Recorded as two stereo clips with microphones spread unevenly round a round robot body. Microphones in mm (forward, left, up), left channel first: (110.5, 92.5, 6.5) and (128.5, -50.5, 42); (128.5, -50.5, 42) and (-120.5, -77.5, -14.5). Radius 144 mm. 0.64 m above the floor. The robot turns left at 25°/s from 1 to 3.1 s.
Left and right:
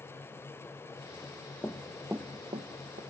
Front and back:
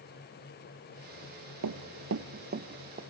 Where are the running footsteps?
170° right, 0.9 m; by 3.0 s 115° right, 1.1 m.